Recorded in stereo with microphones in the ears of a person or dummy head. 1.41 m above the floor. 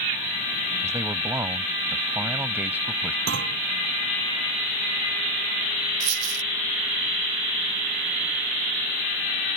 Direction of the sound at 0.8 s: 20° right (ahead or behind).